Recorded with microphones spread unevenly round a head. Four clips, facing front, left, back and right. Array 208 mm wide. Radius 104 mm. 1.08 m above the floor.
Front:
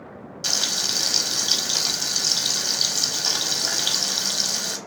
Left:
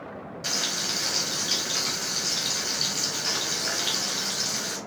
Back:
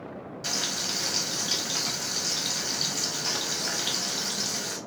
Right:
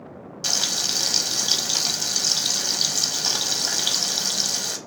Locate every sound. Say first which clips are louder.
0.4 s frying: right 2 dB, front 3 dB; 55° right, 0.8 m